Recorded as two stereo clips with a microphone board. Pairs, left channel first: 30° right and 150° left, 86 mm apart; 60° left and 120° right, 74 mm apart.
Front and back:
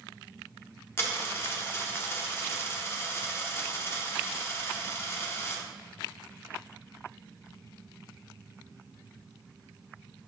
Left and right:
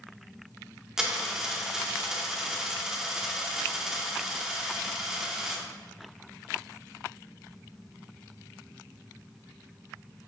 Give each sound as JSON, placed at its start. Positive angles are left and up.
{"t": 1.0, "sound": "a dropped coin", "azimuth_deg": -45, "distance_m": 0.6}